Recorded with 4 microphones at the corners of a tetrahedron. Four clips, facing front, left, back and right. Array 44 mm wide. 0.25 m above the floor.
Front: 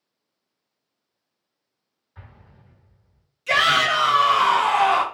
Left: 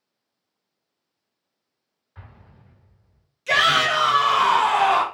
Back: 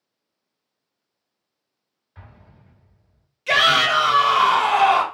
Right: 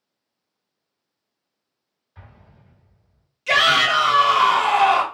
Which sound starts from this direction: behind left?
An explosion, at 2.1 s.